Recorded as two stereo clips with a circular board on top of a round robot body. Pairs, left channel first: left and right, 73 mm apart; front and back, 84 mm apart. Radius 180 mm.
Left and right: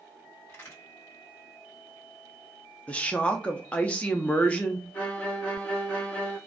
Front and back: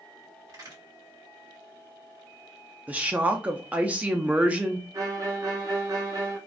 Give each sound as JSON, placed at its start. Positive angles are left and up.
{"t": 0.5, "sound": "a crack", "azimuth_deg": 145, "distance_m": 2.0}
{"t": 2.9, "sound": "a woman speaking", "azimuth_deg": 135, "distance_m": 0.7}
{"t": 4.9, "sound": "a violin", "azimuth_deg": 150, "distance_m": 1.2}